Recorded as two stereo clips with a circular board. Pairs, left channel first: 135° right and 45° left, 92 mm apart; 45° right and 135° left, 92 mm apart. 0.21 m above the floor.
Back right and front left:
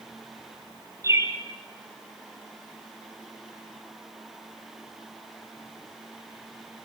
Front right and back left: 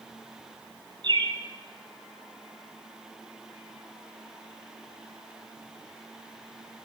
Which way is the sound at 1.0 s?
100° left.